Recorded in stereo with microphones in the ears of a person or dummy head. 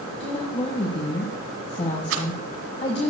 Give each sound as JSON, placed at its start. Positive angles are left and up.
{"t": 0.2, "sound": "a woman speaking", "side_deg": 30, "distance_m": 1.3}
{"t": 2.1, "sound": "a rattle", "side_deg": -80, "distance_m": 2.5}